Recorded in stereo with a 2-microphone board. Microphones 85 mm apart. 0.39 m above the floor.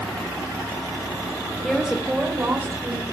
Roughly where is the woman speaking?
Centre.